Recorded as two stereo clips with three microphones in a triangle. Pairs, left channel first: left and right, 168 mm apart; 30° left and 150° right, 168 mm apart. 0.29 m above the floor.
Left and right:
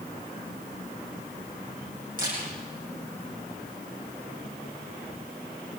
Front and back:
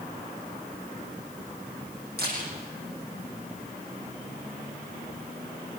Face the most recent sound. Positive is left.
turn(degrees=-125)